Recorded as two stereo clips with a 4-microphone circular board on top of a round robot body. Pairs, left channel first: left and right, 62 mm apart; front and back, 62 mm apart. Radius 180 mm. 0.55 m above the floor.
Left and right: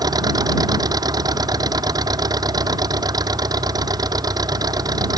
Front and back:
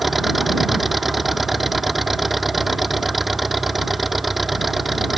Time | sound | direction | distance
0.0 | an engine running | 95° right | ?